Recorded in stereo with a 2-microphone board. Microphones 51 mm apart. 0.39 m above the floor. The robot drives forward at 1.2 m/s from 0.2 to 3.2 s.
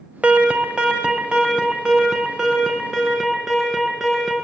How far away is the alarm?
About 1.6 m.